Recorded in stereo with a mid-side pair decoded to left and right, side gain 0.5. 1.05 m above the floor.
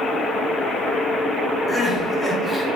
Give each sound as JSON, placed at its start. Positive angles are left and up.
{"t": 1.7, "sound": "crying", "azimuth_deg": 25, "distance_m": 1.2}